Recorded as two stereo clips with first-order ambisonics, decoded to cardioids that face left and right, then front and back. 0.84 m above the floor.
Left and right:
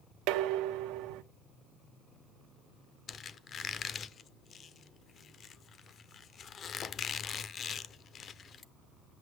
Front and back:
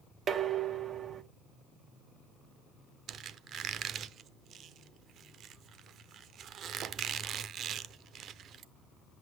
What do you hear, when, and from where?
0.3 s dishes clattering: 115° right, 0.8 m
3.1 s a squeak: 140° left, 0.6 m